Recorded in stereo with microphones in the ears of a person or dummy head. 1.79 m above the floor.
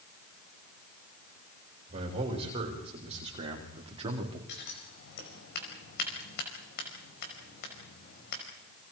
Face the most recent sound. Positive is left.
turn(degrees=55)  # may be behind; listen again after turning